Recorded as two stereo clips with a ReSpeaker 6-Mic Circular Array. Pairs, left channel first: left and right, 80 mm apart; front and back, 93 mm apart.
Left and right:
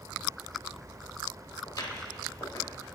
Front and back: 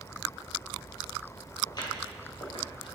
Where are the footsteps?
45° left, 5 m; by 3.0 s 35° left, 5.5 m.